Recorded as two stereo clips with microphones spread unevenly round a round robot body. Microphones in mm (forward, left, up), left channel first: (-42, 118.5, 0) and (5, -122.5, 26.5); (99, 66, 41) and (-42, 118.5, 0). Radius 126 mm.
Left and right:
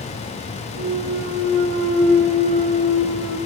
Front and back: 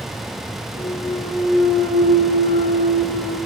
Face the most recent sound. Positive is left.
turn(degrees=-95)